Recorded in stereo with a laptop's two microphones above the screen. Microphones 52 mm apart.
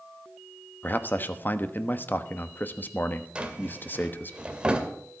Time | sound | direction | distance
0.8 | a man speaking | 35° left (ahead or behind) | 1.2 m
3.4 | a drawer | 25° right (ahead or behind) | 1.9 m